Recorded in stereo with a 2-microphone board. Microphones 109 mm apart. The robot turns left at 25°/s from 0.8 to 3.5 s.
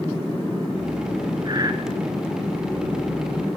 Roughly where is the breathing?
Right.